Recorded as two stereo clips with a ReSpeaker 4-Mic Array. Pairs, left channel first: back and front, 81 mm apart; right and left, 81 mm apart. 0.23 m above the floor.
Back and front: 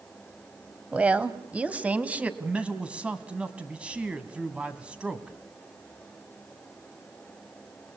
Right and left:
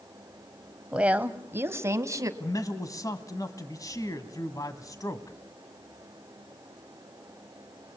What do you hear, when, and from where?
0.9 s a woman speaking: 40° left, 1.2 m; by 2.3 s 65° left, 1.6 m
2.4 s a man speaking: 70° right, 1.5 m